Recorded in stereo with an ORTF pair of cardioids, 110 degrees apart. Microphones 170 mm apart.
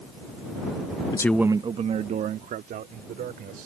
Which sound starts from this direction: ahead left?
A man speaking, at 1.1 s.